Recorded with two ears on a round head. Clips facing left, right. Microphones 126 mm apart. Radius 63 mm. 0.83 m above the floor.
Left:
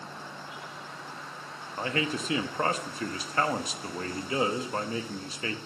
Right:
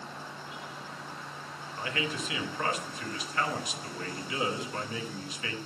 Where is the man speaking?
30° left (ahead or behind), 0.9 m.